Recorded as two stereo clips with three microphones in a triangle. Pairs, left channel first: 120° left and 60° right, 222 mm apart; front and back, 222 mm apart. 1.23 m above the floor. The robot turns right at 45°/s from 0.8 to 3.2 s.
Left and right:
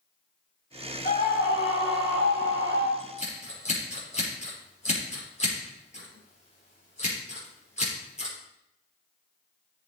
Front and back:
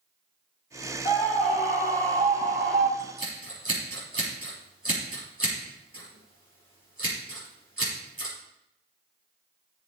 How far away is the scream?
About 6 m.